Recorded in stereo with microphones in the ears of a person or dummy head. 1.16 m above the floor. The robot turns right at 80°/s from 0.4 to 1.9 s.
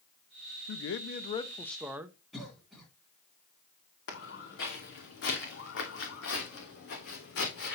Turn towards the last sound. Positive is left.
turn(degrees=65)  # may be behind; listen again after turning